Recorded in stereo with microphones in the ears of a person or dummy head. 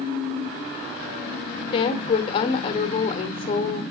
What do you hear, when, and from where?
1.7 s a woman speaking: 25° left (ahead or behind), 0.7 m